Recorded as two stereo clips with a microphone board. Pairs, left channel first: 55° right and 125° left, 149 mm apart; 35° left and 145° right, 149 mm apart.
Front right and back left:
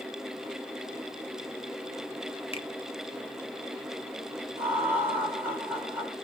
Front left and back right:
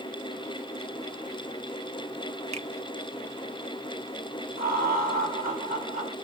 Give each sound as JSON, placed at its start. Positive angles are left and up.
{"t": 2.5, "sound": "a finger snap", "azimuth_deg": -105, "distance_m": 0.7}
{"t": 4.6, "sound": "laughter", "azimuth_deg": -145, "distance_m": 1.4}